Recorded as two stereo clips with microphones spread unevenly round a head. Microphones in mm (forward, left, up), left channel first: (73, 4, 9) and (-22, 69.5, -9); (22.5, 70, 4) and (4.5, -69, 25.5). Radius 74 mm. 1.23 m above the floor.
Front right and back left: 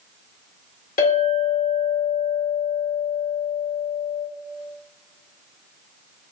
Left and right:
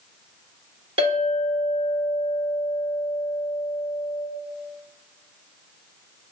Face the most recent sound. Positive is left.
turn(degrees=-50)